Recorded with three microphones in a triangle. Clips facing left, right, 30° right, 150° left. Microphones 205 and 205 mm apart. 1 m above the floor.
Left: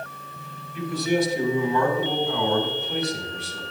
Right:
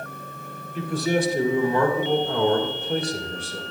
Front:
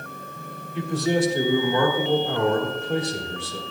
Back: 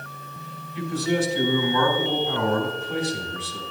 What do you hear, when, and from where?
0.8 s a man speaking: 50° right, 2.5 m